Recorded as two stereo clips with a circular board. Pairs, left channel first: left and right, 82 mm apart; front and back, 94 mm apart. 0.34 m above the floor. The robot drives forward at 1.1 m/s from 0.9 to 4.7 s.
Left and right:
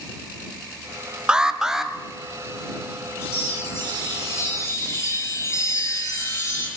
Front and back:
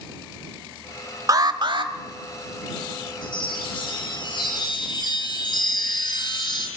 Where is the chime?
30° left, 9.5 m; by 6.7 s 40° left, 8 m.